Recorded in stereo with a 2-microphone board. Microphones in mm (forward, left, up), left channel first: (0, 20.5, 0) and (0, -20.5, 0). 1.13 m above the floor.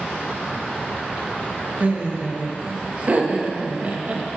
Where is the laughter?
35° right (ahead or behind), 1.4 m.